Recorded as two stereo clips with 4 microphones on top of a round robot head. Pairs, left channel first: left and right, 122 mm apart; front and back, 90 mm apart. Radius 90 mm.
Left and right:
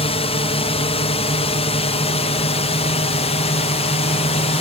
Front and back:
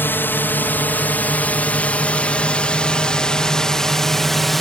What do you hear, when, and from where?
0.0 s a drone: 65° left; by 4.6 s 90° left